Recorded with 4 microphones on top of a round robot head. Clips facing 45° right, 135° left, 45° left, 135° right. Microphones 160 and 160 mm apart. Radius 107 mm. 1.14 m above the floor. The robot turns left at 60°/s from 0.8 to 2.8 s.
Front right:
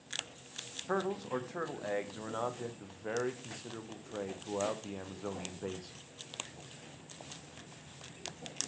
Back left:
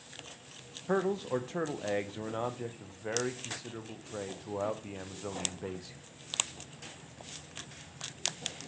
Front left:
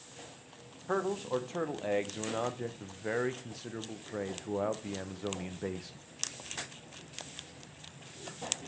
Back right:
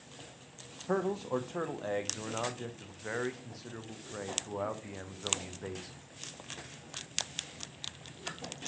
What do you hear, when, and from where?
0.9 s a man speaking: 165° left, 0.6 m; by 6.0 s 50° left, 0.6 m